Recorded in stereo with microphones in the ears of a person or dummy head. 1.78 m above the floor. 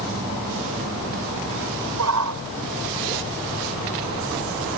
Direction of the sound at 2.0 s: 80° right.